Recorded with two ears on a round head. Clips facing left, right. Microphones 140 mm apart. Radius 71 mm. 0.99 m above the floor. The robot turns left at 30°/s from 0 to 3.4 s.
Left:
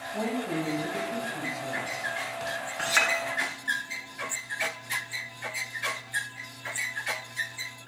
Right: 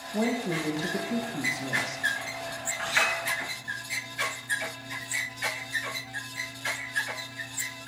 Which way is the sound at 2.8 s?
55° left (ahead or behind).